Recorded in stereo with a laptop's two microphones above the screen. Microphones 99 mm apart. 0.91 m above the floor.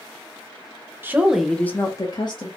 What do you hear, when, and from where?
1.0 s a woman speaking: 20° right (ahead or behind), 0.8 m; by 2.5 s 55° left (ahead or behind), 1.0 m